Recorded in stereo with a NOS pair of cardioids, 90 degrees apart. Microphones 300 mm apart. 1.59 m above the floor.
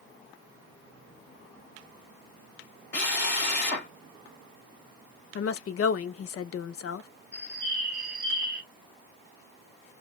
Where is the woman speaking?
50° left, 0.8 m.